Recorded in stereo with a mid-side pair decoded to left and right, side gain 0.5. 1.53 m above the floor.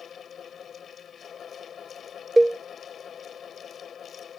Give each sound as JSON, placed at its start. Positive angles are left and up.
{"t": 0.0, "sound": "a fan", "azimuth_deg": 45}
{"t": 2.4, "sound": "a cowbell", "azimuth_deg": -15}